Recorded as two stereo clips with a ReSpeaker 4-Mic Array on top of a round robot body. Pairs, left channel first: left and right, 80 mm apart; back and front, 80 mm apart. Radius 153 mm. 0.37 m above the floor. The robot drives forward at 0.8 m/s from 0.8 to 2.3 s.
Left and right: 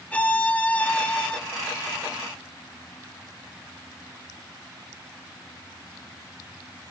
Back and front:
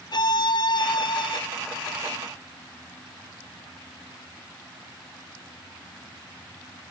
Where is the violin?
160° left, 1.2 m; by 1.4 s 165° left, 1.6 m.